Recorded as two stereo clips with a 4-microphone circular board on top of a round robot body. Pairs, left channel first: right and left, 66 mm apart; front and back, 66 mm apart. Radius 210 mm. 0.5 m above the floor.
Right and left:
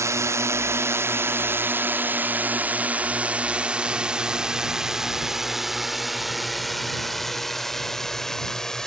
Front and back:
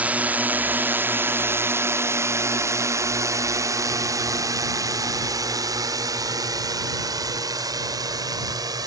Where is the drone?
115° left; by 8.9 s 170° right.